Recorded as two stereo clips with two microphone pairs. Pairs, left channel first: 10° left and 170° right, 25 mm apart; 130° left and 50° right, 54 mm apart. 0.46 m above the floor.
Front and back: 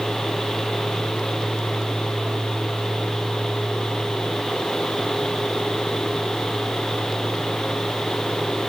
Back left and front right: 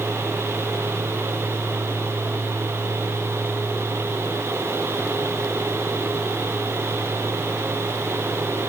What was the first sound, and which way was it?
Only background noise.